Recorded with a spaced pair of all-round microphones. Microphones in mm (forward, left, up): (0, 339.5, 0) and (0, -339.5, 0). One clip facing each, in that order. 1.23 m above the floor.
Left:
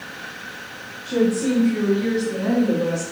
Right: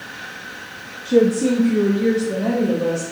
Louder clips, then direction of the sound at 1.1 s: Right 4 dB; 50° right (ahead or behind).